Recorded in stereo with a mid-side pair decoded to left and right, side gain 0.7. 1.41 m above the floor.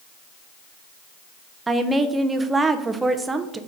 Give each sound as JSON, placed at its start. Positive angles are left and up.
{"t": 1.7, "sound": "a woman speaking", "azimuth_deg": -15, "distance_m": 0.5}